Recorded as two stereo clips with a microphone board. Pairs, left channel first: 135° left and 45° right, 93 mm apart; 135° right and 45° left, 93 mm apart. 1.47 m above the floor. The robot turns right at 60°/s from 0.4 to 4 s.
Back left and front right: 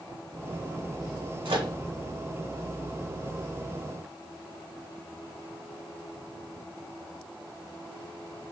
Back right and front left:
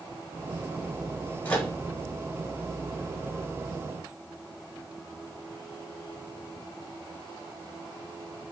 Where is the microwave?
65° right, 1.1 m; by 1.7 s 50° right, 1.1 m.